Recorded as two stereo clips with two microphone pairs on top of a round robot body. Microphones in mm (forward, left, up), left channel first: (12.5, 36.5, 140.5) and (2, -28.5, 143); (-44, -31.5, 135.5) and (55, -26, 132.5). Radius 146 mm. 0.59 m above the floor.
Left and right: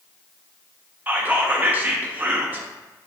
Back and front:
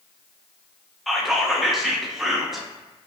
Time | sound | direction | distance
1.1 | whispering | 80° right | 0.5 m